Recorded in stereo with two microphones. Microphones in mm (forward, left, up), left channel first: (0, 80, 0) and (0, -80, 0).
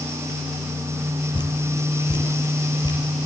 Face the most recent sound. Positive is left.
turn(degrees=25)  # may be behind; listen again after turning